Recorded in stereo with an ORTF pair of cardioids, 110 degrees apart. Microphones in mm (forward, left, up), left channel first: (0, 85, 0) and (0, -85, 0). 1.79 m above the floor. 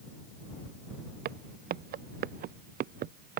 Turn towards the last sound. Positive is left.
turn(degrees=-60)